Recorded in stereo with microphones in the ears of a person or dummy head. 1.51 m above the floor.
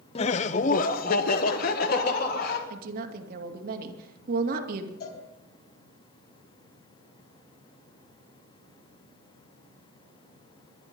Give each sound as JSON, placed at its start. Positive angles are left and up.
{"t": 0.1, "sound": "laughter", "side_deg": 30, "distance_m": 0.7}
{"t": 2.7, "sound": "a woman speaking", "side_deg": -60, "distance_m": 2.0}
{"t": 5.0, "sound": "a cowbell", "side_deg": 55, "distance_m": 3.5}